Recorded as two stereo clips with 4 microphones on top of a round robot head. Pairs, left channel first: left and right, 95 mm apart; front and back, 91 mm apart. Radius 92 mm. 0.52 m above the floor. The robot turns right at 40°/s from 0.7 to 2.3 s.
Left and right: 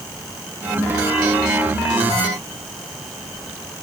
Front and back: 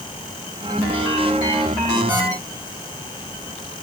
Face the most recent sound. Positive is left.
No sound to turn to.